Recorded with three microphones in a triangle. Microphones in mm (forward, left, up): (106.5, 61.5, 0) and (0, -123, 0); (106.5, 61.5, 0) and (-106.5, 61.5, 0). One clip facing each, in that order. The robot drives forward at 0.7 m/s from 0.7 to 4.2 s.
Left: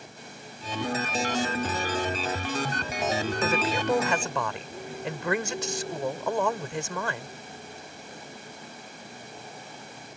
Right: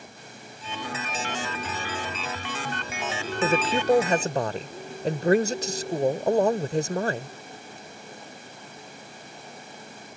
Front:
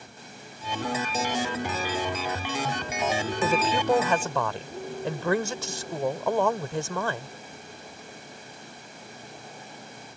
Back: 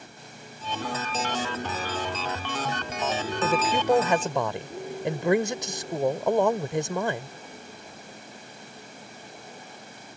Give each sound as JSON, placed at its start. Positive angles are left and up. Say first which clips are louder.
{"t": 3.4, "sound": "a man speaking", "louder": "right 7 dB, back 1 dB", "azimuth_deg": -90}